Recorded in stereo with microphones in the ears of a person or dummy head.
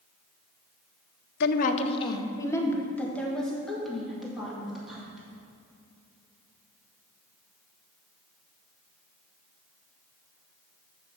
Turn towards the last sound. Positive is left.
turn(degrees=0)  # may be behind; listen again after turning